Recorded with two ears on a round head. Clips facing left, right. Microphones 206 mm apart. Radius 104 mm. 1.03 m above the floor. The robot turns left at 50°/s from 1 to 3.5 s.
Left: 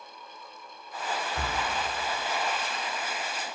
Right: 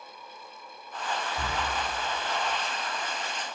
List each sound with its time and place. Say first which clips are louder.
1.4 s breathing: even; 40° left (ahead or behind), 0.9 m